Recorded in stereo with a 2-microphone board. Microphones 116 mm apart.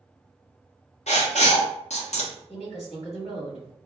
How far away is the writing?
About 0.7 m.